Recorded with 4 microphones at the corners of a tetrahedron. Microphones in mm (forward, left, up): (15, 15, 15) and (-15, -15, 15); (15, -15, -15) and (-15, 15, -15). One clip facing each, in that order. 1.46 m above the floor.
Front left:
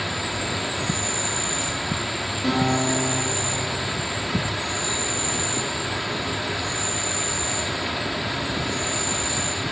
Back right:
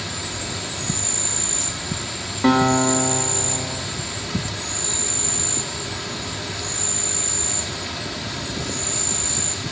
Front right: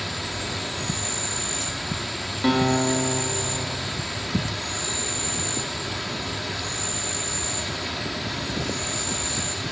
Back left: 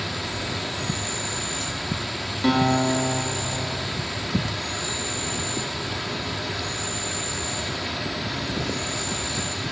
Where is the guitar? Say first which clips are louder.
Back right 6 dB, back left 1 dB; 130° right, 1.6 m.